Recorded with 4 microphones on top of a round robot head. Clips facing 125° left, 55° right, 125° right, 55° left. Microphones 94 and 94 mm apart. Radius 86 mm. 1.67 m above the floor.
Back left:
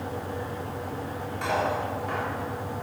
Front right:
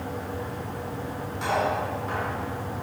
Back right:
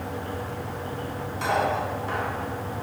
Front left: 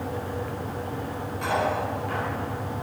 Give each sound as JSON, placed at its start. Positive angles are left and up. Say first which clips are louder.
{"t": 1.4, "sound": "cutlery clinking", "louder": "front right 1 dB, back right 1 dB", "azimuth_deg": -125, "distance_m": 4.0}